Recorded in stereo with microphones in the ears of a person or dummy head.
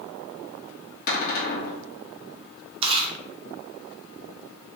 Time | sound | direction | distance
1.1 | a cupboard door | 55° left (ahead or behind) | 1.3 m
2.8 | chewing | 30° right (ahead or behind) | 0.9 m